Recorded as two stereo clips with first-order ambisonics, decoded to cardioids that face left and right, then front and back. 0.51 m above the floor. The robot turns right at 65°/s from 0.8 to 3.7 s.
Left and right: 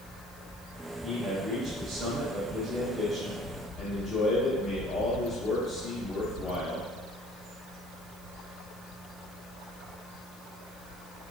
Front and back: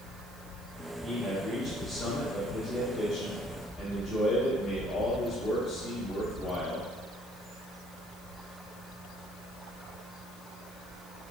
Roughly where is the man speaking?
Behind right.